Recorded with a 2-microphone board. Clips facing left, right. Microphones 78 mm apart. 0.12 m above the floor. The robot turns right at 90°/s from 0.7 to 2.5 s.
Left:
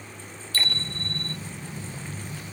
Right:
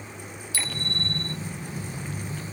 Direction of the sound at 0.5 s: 10° right.